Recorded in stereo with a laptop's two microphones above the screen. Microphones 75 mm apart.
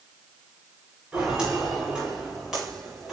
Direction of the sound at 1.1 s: 10° right (ahead or behind).